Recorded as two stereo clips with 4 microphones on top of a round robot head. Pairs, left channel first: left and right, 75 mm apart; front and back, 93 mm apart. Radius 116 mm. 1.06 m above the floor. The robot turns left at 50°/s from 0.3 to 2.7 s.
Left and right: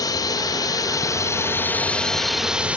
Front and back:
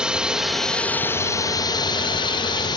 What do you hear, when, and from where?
0.0 s a drone: 100° left; by 2.8 s 20° right